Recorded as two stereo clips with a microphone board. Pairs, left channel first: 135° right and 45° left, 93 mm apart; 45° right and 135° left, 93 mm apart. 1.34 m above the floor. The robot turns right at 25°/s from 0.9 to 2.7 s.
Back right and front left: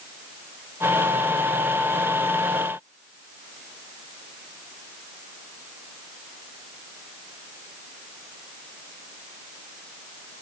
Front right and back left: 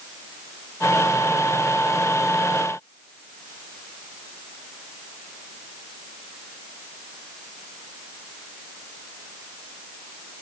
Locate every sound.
Only background noise.